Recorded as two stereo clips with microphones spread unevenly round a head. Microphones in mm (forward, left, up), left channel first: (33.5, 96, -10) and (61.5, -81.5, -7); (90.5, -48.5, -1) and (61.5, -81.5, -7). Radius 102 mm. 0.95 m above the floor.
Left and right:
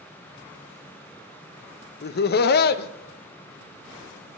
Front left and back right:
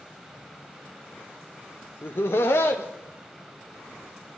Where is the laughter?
90° left, 0.6 m.